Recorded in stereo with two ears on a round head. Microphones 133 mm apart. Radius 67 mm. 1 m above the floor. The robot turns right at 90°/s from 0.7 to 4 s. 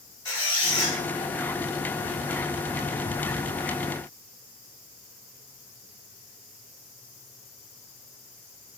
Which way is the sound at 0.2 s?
30° left (ahead or behind).